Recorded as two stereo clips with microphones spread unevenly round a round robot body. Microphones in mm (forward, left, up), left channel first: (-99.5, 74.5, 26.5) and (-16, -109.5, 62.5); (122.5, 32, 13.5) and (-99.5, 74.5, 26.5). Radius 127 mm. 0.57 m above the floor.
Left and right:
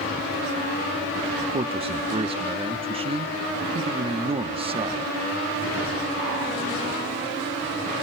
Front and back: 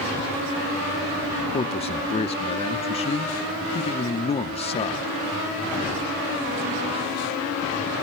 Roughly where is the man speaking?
Ahead.